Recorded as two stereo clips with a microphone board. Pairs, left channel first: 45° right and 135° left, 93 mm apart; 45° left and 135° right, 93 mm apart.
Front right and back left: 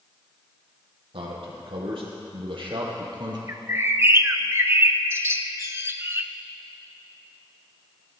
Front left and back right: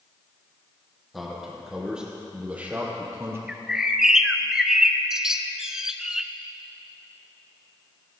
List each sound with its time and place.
1.1 s a man speaking: 135° left, 3.5 m; by 3.4 s 165° left, 2.5 m
3.5 s a bird: 150° left, 0.7 m